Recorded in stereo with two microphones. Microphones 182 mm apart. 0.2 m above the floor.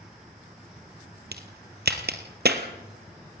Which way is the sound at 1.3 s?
75° right (ahead or behind).